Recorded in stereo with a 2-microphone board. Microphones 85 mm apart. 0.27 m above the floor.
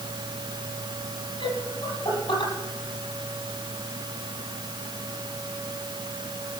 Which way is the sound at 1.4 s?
80° left.